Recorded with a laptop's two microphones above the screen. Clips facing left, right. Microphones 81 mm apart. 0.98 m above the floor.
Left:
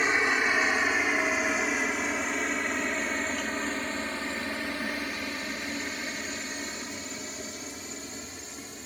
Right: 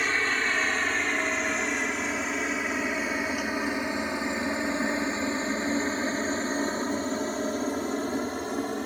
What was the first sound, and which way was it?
A helicopter, 10° left (ahead or behind).